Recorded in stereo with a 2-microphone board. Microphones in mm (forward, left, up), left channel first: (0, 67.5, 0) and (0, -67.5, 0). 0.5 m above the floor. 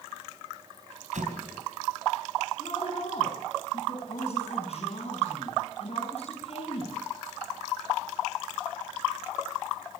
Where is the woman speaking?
50° left (ahead or behind), 5.5 m.